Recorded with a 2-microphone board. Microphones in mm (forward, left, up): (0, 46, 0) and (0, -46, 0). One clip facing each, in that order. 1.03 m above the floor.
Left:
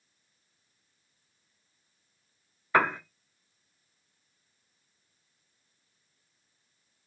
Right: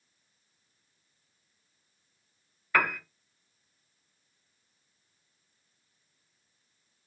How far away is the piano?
About 0.6 m.